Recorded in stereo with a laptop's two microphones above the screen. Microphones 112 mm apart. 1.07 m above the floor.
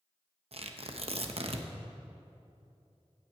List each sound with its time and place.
0.5 s tearing paper: 60° right (ahead or behind), 0.8 m